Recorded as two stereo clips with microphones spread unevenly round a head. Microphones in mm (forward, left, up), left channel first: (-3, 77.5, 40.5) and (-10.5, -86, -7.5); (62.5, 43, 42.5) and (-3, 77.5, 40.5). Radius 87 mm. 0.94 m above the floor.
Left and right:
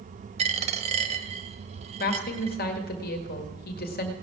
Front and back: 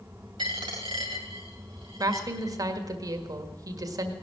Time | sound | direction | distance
0.4 | a dropped coin | 150° right | 1.4 m
2.0 | a woman speaking | 125° left | 1.8 m